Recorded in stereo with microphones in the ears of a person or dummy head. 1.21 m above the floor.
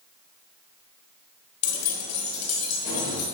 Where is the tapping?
No tapping in this recording.